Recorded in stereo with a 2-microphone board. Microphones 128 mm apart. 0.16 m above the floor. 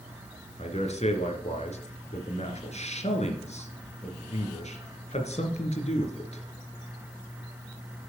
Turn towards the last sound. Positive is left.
turn(degrees=60)  # may be behind; listen again after turning